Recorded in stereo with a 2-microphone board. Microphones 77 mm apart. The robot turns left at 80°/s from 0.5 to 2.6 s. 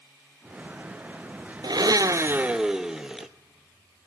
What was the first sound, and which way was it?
A blender, 95° right.